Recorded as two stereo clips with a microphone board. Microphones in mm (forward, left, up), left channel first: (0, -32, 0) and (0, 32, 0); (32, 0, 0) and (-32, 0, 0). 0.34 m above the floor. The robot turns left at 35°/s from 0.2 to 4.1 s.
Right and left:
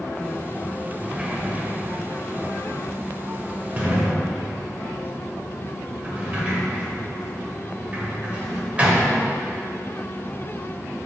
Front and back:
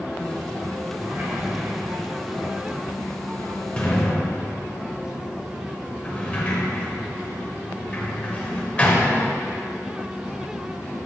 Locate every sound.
1.0 s a sliding door: 155° left, 1.0 m; by 9.4 s 45° left, 1.0 m